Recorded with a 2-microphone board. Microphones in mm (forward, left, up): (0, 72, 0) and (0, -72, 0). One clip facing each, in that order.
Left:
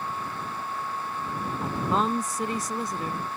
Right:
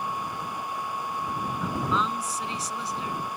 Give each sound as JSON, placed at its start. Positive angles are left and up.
{"t": 1.6, "sound": "a woman speaking", "side_deg": 50}